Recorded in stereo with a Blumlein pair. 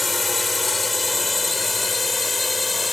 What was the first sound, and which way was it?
A drone, 10° left.